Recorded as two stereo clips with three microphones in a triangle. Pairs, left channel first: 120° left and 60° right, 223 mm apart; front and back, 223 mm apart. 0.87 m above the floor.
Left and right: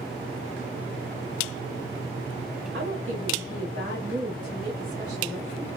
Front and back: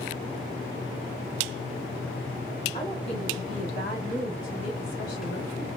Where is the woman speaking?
40° right, 1.6 m; by 5.7 s 25° right, 3 m.